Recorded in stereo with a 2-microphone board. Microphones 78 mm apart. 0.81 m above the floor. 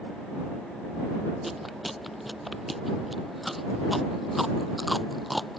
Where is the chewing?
Centre (ahead or behind).